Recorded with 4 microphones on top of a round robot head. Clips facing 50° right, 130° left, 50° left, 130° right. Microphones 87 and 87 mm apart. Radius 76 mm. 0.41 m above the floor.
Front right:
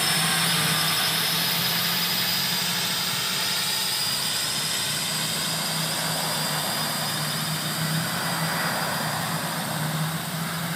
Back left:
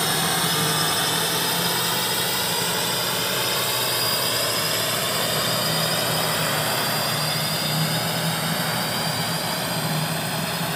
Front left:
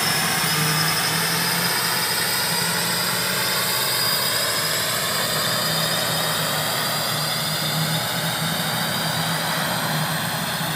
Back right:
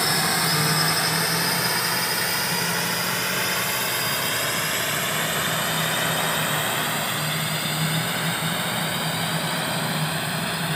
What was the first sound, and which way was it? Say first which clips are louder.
A drone: back left 3 dB, even; 155° left.